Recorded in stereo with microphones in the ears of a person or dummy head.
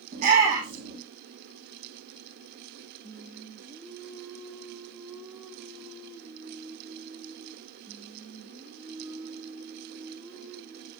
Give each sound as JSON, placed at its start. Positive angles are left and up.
{"t": 0.1, "sound": "a shout", "side_deg": -45, "distance_m": 3.0}
{"t": 3.0, "sound": "singing", "side_deg": -15, "distance_m": 1.9}